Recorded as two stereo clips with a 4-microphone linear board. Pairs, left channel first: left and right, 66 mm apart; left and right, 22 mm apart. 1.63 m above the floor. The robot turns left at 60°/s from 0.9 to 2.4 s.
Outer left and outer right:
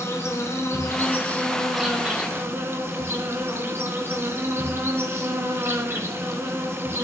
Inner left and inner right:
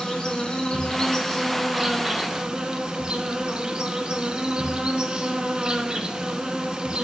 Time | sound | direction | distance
0.0 | an insect | 50° left | 3.5 m